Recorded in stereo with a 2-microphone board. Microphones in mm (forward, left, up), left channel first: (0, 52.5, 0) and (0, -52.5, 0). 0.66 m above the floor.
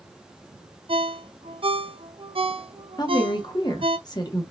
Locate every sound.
0.9 s a ringtone: 60° right (ahead or behind), 0.5 m
3.0 s a woman speaking: 40° left (ahead or behind), 1.1 m